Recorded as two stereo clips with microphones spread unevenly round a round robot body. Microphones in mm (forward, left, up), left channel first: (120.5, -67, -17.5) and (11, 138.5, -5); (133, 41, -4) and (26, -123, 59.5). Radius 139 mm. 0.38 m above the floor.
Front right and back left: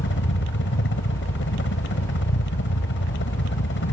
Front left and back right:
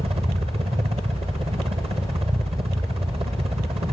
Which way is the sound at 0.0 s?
50° right.